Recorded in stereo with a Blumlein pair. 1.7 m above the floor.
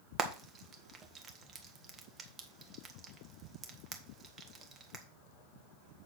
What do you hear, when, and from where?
0.2 s frying: 20° right, 1.6 m